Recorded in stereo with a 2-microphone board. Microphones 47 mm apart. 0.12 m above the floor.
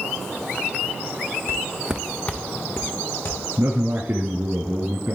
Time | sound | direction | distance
1.5 | footsteps | 60° right (ahead or behind) | 0.9 m
3.6 | a man speaking | 40° right (ahead or behind) | 1.4 m